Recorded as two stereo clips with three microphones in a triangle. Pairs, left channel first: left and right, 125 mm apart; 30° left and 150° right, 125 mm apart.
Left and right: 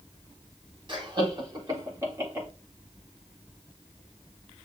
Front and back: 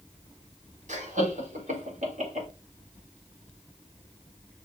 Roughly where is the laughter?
Behind right.